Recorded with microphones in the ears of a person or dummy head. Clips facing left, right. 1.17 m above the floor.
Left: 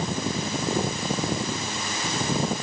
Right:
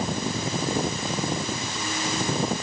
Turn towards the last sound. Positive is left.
No sound to turn to.